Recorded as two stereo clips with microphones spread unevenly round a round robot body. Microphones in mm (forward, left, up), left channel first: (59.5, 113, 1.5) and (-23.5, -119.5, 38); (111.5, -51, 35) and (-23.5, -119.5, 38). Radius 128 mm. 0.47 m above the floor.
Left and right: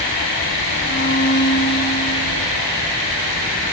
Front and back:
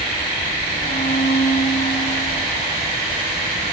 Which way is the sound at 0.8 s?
25° left.